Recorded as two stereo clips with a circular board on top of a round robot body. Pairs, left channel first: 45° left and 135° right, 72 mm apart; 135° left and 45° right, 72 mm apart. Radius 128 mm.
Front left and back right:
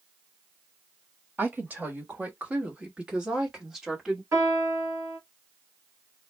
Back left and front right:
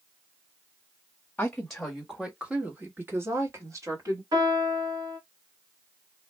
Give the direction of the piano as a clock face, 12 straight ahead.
3 o'clock.